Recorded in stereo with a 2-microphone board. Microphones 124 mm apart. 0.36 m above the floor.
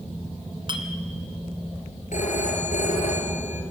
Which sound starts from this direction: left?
A phone ringing, at 2.1 s.